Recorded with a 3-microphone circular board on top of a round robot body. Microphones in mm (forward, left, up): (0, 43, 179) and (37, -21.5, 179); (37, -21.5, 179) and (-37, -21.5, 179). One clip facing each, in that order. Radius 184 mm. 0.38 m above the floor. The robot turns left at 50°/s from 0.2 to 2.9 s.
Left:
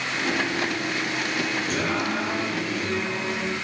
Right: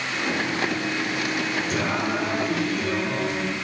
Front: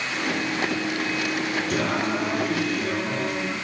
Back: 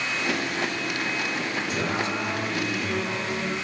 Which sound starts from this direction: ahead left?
Singing, at 1.7 s.